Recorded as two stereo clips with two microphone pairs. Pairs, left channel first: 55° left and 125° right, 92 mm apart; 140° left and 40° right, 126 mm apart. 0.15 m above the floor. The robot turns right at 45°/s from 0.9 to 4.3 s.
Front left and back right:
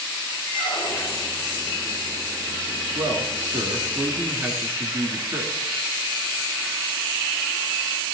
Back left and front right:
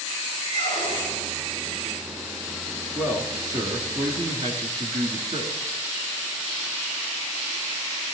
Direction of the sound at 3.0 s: 120° right.